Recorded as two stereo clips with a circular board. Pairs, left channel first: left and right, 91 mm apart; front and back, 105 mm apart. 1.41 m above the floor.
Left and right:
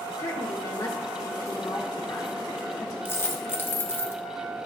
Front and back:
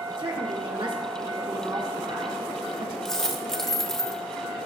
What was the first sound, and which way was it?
A woman speaking, 140° left.